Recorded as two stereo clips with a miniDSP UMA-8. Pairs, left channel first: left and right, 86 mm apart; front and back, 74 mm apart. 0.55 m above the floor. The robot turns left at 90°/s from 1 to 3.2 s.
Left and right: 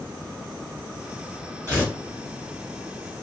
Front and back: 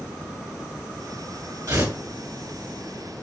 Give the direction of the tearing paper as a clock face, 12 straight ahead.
5 o'clock.